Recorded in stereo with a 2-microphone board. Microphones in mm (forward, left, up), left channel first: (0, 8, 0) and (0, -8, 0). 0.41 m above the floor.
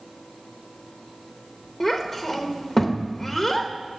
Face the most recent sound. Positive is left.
turn(degrees=20)  # may be behind; listen again after turning